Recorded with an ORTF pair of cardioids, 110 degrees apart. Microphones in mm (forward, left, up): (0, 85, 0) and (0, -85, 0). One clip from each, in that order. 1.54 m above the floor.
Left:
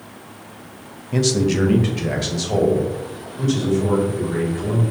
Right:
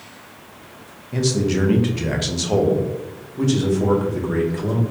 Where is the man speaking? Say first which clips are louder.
Left 2 dB; 20° left, 0.8 m; by 4.8 s 50° right, 2 m.